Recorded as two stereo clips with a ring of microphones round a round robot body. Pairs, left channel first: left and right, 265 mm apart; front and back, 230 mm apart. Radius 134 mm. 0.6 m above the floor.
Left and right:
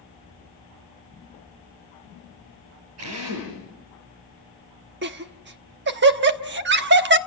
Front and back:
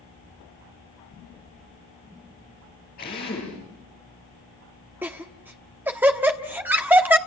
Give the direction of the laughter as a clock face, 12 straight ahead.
3 o'clock.